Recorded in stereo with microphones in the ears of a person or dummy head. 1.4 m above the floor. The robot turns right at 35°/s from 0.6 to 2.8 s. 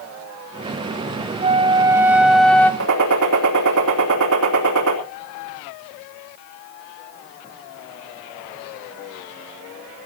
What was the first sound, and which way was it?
A flute, 35° right.